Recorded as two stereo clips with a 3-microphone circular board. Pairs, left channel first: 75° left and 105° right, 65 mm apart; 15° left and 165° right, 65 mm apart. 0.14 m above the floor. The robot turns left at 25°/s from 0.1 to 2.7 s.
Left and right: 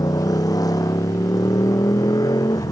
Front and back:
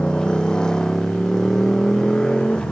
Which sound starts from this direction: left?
A motorcycle, at 0.0 s.